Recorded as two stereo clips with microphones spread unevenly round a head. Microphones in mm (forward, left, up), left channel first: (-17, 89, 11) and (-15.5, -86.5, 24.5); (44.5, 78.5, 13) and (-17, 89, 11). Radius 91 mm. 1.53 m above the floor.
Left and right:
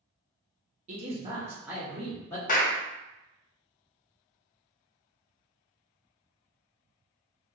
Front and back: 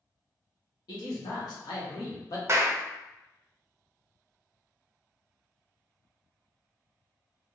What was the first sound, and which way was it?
A man speaking, 40° right.